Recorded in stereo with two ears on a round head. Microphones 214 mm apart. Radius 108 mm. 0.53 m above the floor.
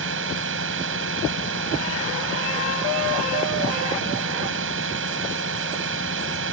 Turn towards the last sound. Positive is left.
turn(degrees=-55)  # may be behind; listen again after turning